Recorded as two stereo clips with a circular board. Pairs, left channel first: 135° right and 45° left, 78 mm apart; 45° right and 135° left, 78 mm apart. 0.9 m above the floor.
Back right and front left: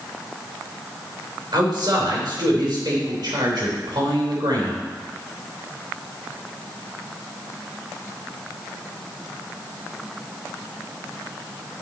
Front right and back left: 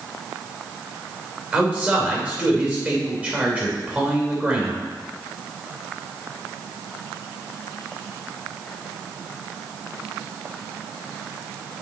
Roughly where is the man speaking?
Ahead left.